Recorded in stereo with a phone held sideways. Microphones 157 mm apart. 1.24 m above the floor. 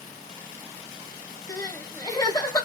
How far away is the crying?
About 0.7 m.